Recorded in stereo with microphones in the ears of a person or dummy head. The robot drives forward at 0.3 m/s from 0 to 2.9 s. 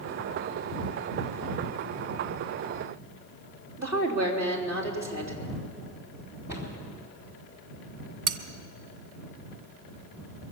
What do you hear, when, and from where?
3.8 s a woman speaking: 15° right (ahead or behind), 3 m
6.5 s a cupboard door: 20° right (ahead or behind), 2.5 m
8.3 s cutlery clinking: 55° right (ahead or behind), 0.9 m